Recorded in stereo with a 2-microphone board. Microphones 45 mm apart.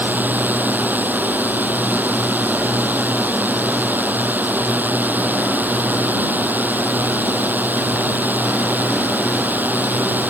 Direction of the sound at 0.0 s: 45° right (ahead or behind).